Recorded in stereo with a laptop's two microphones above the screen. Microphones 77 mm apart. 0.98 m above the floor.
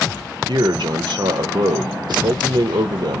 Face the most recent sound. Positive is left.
turn(degrees=-65)  # may be behind; listen again after turning